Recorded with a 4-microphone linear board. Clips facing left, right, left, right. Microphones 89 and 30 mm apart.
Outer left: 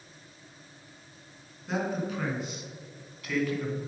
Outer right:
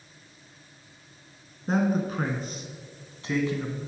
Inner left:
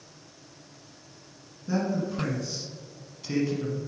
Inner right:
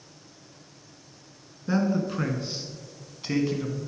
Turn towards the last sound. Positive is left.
turn(degrees=-20)  # may be behind; listen again after turning